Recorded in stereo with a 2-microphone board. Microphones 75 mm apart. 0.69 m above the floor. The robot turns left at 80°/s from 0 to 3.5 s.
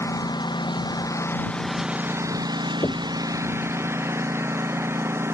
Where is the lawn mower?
40° left (ahead or behind); by 5.3 s 35° right (ahead or behind).